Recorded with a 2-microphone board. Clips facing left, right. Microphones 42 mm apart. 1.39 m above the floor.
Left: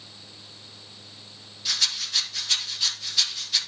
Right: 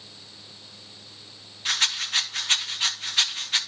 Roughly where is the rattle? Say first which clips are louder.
Right 3 dB; right.